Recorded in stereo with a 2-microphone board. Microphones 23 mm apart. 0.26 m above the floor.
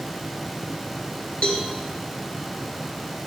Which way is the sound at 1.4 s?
55° left (ahead or behind).